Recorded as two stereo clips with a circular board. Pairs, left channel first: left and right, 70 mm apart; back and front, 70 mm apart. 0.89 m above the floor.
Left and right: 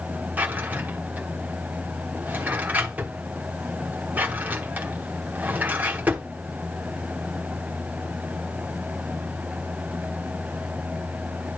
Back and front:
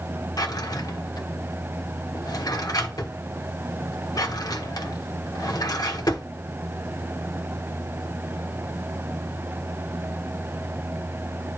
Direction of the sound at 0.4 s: 155° right.